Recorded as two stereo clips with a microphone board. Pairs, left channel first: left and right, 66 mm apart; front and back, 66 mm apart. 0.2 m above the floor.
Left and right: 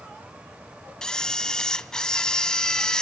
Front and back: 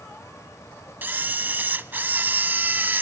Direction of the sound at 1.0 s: 160° left.